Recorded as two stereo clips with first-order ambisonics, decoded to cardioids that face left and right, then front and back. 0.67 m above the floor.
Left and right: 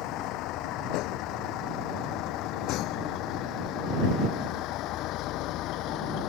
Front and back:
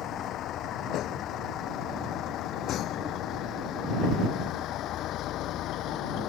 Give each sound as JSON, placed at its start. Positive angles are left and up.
{"t": 0.0, "sound": "a vehicle", "azimuth_deg": 55}